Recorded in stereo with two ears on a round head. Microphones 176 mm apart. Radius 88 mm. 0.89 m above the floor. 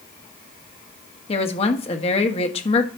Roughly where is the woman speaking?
Left.